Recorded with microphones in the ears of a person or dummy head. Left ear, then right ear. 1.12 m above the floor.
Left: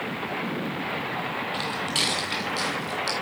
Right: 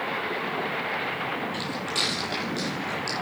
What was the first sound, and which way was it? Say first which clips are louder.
Footsteps: left 2 dB; 20° left (ahead or behind).